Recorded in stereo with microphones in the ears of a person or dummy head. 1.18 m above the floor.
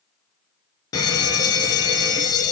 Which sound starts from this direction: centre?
An alarm, at 0.9 s.